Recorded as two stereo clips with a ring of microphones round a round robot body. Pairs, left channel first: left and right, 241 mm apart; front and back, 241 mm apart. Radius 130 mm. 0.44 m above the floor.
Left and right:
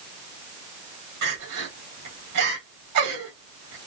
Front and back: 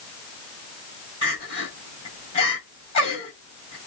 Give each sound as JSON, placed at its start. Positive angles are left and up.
{"t": 1.2, "sound": "crying", "azimuth_deg": -65, "distance_m": 2.0}